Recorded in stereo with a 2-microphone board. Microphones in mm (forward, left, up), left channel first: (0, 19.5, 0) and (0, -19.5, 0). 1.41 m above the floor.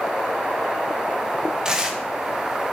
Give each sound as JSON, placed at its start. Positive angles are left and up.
{"t": 1.6, "sound": "tearing paper", "side_deg": -20, "distance_m": 1.0}